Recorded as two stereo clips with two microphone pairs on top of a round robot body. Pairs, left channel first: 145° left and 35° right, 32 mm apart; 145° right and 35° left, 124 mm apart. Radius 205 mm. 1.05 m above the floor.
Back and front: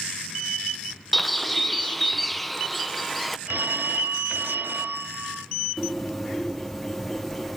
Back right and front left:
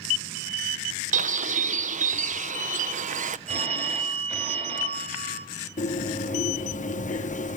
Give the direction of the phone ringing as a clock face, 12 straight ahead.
12 o'clock.